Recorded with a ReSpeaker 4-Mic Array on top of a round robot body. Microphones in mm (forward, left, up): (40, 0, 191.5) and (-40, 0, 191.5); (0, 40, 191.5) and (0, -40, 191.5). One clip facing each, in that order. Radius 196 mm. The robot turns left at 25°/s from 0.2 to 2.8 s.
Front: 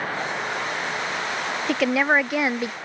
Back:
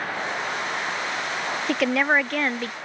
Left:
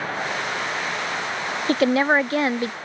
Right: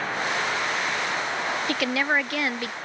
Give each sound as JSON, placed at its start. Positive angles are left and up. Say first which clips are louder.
{"t": 1.7, "sound": "a woman speaking", "louder": "front 1 dB, left 8 dB", "azimuth_deg": 90}